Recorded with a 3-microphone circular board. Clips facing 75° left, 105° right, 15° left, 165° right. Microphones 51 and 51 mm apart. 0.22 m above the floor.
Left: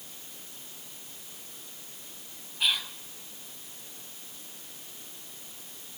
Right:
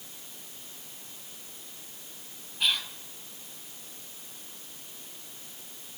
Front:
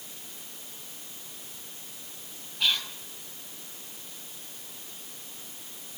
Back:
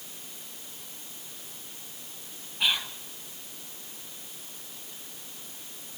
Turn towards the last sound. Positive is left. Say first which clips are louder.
# even, even
turn(degrees=155)